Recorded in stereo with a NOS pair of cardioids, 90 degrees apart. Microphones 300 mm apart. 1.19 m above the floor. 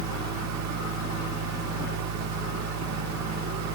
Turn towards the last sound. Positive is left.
turn(degrees=-65)